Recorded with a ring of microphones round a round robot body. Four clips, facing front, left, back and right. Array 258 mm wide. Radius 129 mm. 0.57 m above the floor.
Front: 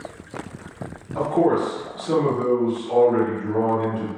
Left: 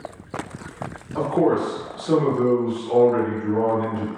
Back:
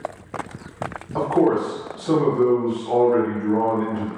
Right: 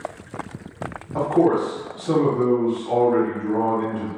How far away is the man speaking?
About 1.5 m.